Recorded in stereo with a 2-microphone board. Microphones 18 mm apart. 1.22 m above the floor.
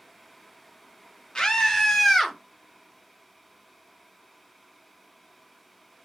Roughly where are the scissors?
I don't hear scissors.